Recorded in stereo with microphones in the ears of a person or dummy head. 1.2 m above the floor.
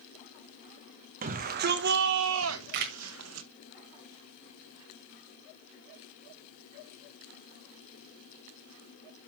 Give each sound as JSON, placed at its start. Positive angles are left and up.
{"t": 1.2, "sound": "a shout", "side_deg": -45, "distance_m": 1.3}
{"t": 2.7, "sound": "a camera shutter", "side_deg": -50, "distance_m": 1.4}